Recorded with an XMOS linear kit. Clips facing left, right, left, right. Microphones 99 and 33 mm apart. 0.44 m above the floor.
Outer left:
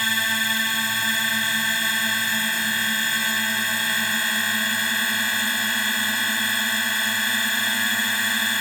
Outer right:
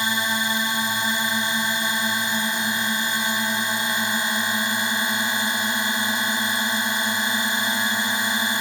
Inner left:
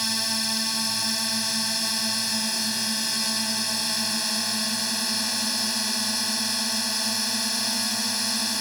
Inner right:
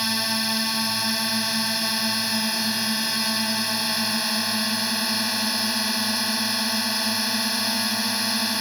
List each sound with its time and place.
0.0 s a drone: 20° right (ahead or behind)